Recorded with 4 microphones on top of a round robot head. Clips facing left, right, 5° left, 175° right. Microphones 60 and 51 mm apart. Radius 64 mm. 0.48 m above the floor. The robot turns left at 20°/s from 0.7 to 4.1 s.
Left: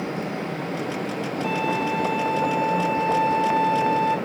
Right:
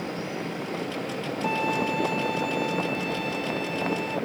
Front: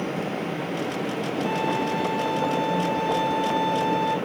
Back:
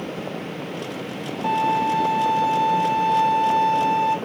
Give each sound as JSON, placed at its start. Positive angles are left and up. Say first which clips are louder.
{"t": 1.4, "sound": "a violin", "louder": "left 1 dB, back 7 dB", "azimuth_deg": -165, "distance_m": 4.0}